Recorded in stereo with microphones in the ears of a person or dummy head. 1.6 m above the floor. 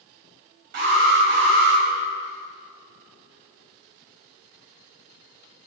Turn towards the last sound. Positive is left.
turn(degrees=-50)  # may be behind; listen again after turning